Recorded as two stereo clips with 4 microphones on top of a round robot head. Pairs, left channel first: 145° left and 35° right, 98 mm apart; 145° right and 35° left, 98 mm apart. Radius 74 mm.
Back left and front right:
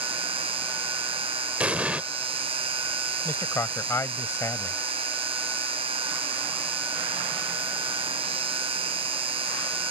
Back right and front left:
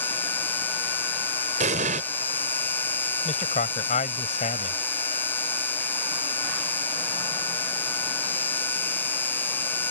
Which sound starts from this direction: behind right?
A man speaking, at 3.2 s.